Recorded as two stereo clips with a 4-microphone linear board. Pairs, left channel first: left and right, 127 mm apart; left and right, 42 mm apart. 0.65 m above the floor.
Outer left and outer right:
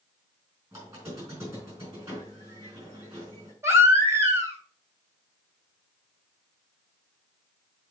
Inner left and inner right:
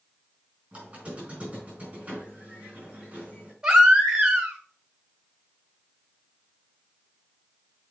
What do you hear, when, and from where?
0.7 s a squeak: 25° right (ahead or behind), 4.5 m
3.6 s a baby crying: 20° right (ahead or behind), 1.6 m